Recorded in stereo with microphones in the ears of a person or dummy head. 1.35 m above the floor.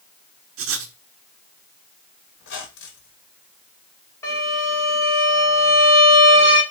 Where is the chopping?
No chopping in this recording.